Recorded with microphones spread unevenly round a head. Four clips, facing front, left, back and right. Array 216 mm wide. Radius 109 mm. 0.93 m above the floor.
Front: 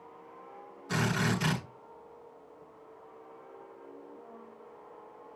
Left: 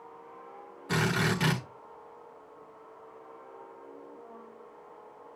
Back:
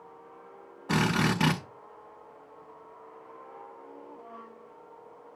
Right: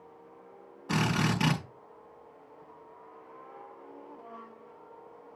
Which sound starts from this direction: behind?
A drill, at 0.9 s.